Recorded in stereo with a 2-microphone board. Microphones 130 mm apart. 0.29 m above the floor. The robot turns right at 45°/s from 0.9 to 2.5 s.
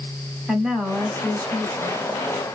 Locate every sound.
0.5 s a woman speaking: 10° right, 1.5 m; by 2.0 s 45° left, 1.5 m